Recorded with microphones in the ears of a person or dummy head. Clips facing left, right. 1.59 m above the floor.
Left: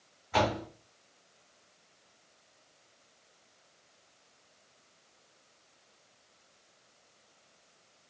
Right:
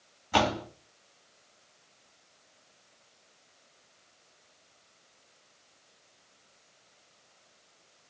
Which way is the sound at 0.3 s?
50° right (ahead or behind).